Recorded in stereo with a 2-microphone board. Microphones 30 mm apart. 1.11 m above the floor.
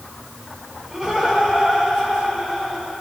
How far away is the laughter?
About 5 m.